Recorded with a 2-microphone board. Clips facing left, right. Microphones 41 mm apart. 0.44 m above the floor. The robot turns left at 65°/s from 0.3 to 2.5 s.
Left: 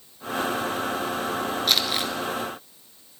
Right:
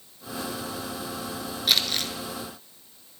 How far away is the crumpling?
About 1.1 m.